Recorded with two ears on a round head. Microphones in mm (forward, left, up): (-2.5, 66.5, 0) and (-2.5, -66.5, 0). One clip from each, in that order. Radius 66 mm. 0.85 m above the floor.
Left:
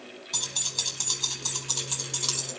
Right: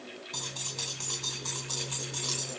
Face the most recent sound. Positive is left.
turn(degrees=50)  # may be behind; listen again after turning